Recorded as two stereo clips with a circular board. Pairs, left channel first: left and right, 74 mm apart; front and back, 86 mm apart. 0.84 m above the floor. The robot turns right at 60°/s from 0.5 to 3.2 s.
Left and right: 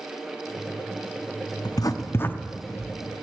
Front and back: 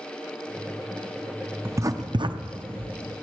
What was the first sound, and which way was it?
Writing, 115° left.